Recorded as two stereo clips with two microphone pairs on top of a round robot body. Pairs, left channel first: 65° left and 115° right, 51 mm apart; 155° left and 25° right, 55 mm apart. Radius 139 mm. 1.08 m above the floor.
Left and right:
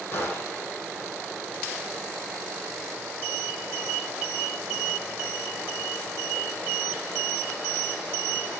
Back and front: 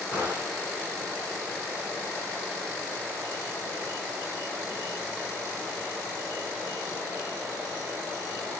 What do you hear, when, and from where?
0.1 s a gunshot: 120° left, 9.5 m